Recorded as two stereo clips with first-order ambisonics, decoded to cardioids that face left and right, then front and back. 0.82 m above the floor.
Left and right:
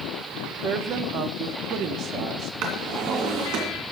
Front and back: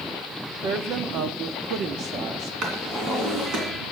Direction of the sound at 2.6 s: 125° right.